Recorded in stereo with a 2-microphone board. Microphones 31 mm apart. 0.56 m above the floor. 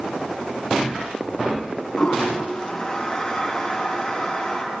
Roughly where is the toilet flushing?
Centre.